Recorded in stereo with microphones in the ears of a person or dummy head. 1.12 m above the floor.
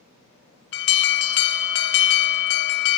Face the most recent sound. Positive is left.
turn(degrees=60)  # may be behind; listen again after turning